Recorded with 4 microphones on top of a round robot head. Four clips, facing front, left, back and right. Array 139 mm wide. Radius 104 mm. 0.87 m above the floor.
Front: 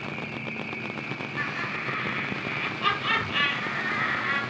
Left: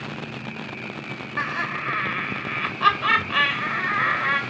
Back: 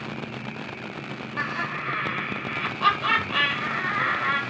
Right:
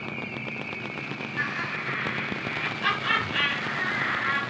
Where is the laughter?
120° left, 2 m.